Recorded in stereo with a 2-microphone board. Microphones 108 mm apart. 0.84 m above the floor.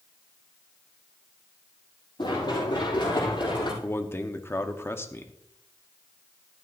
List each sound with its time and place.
2.2 s running footsteps: 40° left (ahead or behind), 7.5 m
3.8 s a man speaking: 20° left (ahead or behind), 1.1 m